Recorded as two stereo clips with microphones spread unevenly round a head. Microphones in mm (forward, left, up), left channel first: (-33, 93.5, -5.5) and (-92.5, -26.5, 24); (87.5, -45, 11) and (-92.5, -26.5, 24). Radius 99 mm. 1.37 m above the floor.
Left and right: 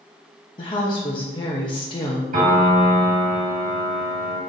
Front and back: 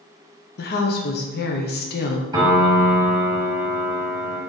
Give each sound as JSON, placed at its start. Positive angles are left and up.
{"t": 0.6, "sound": "a woman speaking", "azimuth_deg": 15, "distance_m": 0.7}
{"t": 2.3, "sound": "a piano", "azimuth_deg": -115, "distance_m": 1.3}